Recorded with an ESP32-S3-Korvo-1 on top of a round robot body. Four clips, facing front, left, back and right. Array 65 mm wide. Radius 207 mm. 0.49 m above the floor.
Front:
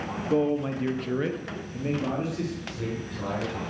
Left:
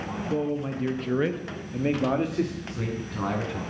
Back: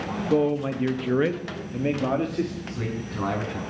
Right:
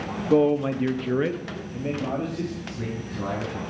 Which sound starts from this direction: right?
A man speaking, at 0.3 s.